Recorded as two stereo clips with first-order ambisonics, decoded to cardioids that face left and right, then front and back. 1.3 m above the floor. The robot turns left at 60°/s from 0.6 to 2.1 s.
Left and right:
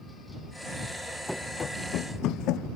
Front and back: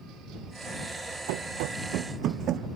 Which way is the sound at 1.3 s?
Straight behind.